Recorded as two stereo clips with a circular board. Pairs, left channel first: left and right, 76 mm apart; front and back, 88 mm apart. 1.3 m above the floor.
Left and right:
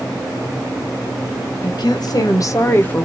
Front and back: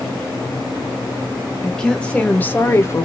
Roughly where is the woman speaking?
Left.